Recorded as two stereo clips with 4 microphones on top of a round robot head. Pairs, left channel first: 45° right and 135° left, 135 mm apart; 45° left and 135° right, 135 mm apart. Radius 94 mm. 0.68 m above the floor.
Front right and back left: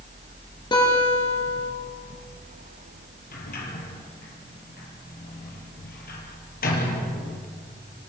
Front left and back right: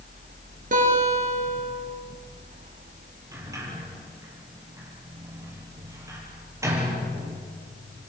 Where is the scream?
I don't hear a scream.